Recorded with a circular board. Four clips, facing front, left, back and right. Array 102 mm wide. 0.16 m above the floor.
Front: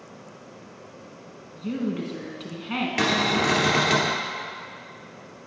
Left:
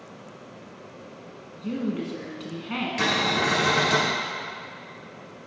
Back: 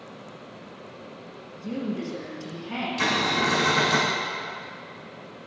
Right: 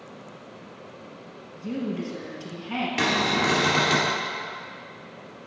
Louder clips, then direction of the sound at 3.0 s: Right 1 dB, front 1 dB; 20° right.